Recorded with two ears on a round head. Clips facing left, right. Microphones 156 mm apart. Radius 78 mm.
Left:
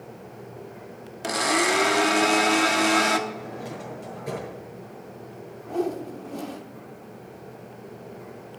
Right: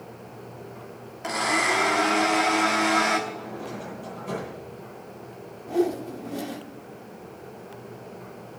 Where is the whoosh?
10° right (ahead or behind), 0.9 m.